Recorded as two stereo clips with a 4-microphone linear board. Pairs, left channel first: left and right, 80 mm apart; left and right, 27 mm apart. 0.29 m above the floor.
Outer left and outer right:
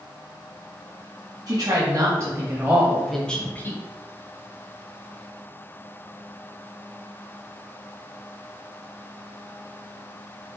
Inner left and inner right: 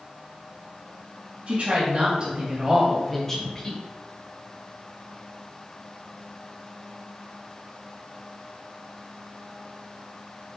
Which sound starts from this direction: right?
A woman speaking, at 1.5 s.